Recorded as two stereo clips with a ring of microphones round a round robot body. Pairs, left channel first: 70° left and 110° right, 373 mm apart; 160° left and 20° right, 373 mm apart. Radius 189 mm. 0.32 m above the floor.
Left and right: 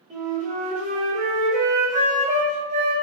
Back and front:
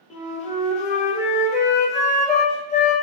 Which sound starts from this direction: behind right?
A flute, at 0.1 s.